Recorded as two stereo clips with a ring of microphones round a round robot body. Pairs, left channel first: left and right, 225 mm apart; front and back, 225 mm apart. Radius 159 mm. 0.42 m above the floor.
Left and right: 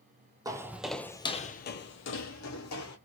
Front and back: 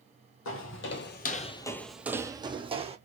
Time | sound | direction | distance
0.5 | footsteps | 15° right | 0.7 m